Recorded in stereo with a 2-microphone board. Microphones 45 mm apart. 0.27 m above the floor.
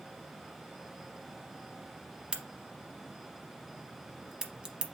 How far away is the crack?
About 0.7 m.